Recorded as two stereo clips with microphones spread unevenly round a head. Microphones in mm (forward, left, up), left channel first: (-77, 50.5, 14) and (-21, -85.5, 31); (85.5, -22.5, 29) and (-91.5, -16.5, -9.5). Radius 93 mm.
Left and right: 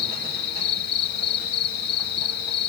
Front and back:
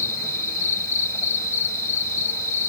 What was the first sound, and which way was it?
An insect, 75° left.